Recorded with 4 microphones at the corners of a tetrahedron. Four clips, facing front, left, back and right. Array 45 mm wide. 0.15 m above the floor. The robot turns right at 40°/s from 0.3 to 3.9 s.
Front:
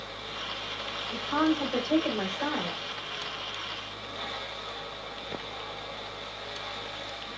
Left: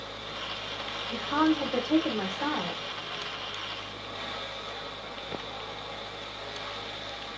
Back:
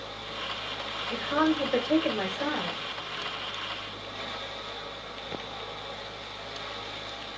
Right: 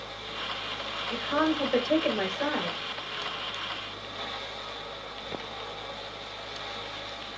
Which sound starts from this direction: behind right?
A woman speaking, at 1.1 s.